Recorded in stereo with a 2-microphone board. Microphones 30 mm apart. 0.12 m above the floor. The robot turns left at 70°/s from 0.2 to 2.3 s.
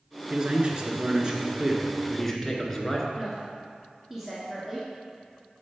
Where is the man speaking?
55° right, 1.3 m; by 3.1 s 165° left, 1.3 m.